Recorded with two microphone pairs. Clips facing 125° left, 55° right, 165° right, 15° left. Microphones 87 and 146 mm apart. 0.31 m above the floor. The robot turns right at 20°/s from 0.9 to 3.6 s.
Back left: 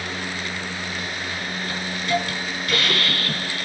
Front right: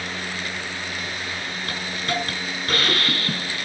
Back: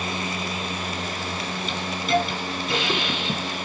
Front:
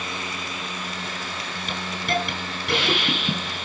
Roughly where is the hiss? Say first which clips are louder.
Back left 4 dB, back 3 dB; ahead.